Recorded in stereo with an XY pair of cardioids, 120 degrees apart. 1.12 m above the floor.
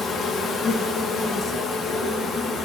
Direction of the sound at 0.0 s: 55° left.